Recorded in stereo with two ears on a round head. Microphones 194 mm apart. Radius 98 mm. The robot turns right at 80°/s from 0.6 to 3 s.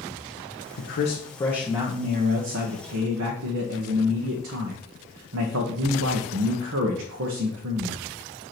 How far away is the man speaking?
About 1.0 m.